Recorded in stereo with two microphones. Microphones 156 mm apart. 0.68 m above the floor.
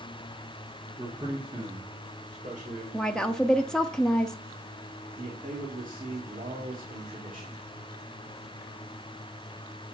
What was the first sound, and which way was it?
A man speaking, 15° right (ahead or behind).